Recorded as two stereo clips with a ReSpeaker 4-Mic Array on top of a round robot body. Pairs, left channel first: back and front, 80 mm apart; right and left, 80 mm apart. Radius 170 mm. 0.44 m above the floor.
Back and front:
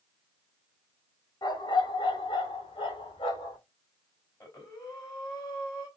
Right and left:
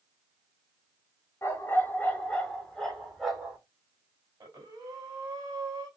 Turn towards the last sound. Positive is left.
turn(degrees=135)